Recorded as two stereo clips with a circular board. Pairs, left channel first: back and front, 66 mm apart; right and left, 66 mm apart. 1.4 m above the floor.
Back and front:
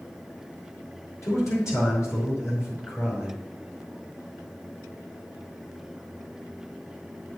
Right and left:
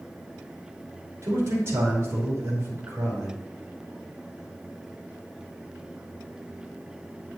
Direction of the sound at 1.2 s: 140° left.